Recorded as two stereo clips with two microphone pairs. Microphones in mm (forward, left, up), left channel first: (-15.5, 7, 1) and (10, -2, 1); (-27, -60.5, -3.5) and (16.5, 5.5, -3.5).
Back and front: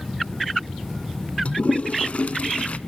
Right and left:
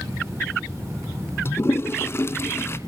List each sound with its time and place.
1.4 s a toilet flushing: 175° right, 0.8 m